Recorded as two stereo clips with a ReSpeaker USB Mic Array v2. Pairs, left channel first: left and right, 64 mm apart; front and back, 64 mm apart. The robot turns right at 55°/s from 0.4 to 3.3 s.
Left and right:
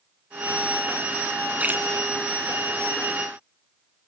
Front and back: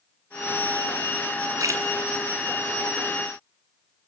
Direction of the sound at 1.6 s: 155° right.